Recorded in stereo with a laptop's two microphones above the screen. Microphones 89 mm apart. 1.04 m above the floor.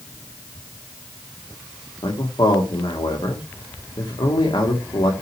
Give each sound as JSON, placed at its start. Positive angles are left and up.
{"t": 2.0, "sound": "a man speaking", "side_deg": 80, "distance_m": 1.8}